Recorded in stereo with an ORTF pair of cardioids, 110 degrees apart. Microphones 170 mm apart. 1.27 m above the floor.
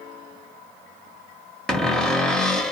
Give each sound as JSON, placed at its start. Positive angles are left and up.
{"t": 1.7, "sound": "a cupboard door", "azimuth_deg": 5, "distance_m": 0.6}